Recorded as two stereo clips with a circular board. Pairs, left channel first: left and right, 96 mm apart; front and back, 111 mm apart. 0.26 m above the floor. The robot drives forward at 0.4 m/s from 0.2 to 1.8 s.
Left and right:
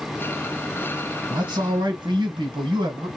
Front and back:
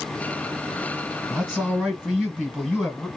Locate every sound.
1.3 s a man speaking: 90° right, 1.6 m; by 3.1 s 100° right, 1.7 m